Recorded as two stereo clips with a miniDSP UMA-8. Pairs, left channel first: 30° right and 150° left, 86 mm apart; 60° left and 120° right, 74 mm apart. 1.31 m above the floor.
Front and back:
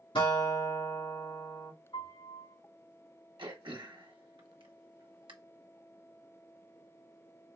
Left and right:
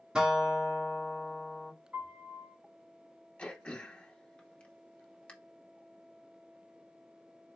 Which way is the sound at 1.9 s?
50° right.